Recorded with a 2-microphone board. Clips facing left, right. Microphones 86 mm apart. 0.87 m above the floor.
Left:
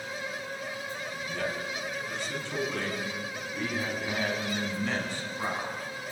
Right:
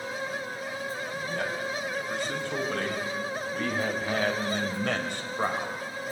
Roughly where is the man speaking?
Right.